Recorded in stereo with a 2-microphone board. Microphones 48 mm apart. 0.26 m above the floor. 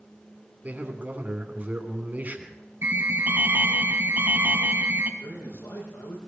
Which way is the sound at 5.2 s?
80° left.